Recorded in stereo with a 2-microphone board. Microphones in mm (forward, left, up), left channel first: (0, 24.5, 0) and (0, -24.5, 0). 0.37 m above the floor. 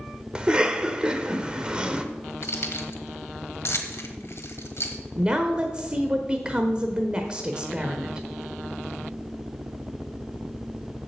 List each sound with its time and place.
0.3 s a cough: 20° right (ahead or behind), 0.8 m
2.4 s keys jangling: 60° left (ahead or behind), 1.3 m
5.2 s a woman speaking: 20° right (ahead or behind), 0.9 m